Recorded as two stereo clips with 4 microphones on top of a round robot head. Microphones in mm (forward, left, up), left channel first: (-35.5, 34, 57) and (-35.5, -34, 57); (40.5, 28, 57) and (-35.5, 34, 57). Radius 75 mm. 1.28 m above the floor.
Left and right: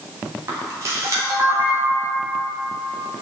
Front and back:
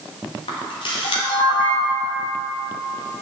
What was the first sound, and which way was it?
A camera shutter, 35° right.